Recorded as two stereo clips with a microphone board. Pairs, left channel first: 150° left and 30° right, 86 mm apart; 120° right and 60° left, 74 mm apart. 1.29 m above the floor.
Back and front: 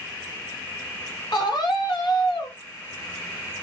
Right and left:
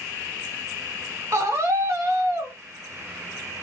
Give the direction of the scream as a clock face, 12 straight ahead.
8 o'clock.